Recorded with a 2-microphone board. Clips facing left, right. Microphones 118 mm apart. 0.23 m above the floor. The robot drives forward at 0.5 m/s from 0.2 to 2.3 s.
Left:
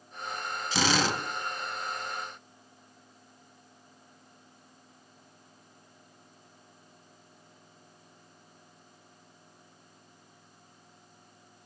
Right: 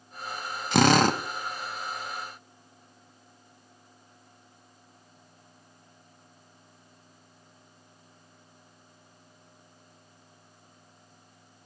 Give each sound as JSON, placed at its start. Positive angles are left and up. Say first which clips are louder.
{"t": 0.7, "sound": "a drill", "louder": "right 8 dB", "side_deg": -60, "distance_m": 0.6}